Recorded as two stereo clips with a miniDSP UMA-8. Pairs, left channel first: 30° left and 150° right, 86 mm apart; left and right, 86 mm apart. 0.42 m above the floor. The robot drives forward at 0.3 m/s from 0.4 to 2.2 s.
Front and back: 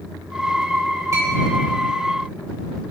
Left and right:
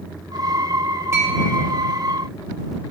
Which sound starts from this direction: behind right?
A clink, at 1.1 s.